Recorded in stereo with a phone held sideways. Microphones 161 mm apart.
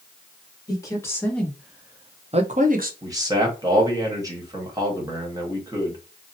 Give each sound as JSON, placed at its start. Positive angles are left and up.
{"t": 0.7, "sound": "a woman speaking", "side_deg": 25, "distance_m": 1.4}
{"t": 3.0, "sound": "a man speaking", "side_deg": -20, "distance_m": 1.4}